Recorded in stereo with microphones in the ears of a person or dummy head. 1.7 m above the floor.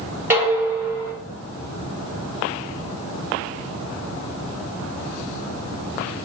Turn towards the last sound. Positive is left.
turn(degrees=-10)  # may be behind; listen again after turning